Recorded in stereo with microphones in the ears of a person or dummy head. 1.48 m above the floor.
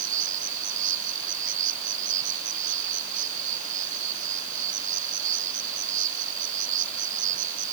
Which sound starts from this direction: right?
An insect, at 0.0 s.